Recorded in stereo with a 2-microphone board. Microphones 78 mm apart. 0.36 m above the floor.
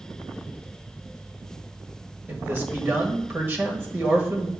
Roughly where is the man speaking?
Right.